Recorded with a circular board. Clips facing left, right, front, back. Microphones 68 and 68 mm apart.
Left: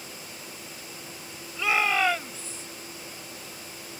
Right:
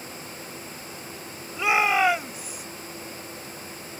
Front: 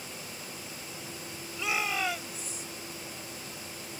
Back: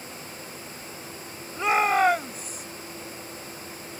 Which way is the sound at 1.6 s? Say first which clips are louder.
Right 3 dB, back 10 dB; 155° right.